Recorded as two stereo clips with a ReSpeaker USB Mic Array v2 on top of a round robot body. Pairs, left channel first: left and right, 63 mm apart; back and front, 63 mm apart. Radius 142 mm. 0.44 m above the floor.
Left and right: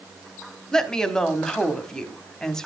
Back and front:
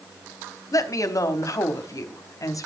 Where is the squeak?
I don't hear a squeak.